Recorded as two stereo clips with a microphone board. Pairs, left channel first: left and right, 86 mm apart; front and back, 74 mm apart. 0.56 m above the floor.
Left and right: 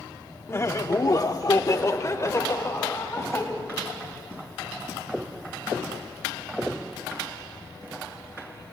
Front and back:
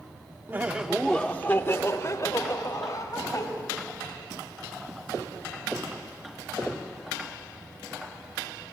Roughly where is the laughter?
Behind left.